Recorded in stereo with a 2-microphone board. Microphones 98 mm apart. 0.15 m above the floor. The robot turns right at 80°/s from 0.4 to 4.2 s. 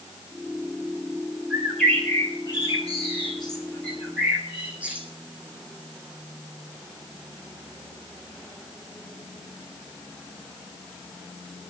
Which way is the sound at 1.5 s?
20° right.